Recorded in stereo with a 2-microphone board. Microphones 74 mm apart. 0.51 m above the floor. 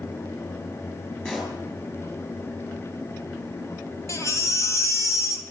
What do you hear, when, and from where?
1.2 s a pop: 15° left (ahead or behind), 8.5 m
4.1 s a baby crying: 40° left (ahead or behind), 3 m